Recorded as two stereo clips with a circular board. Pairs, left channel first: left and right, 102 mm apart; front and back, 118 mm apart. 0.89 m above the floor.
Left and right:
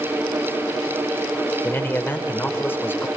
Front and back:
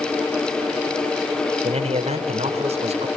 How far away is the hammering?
I don't hear hammering.